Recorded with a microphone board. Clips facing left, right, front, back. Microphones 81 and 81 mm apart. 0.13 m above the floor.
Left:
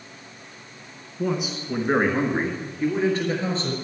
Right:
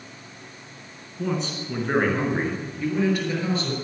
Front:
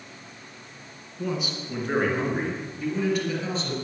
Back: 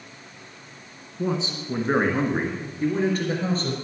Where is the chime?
I don't hear a chime.